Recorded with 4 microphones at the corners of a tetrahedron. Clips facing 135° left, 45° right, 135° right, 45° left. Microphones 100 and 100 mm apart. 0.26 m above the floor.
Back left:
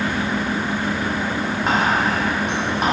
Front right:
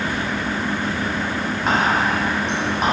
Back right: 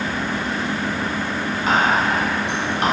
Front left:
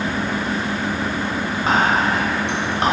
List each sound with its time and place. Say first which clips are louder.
1.7 s whispering: front right 1 dB, even; 50° left, 1.1 m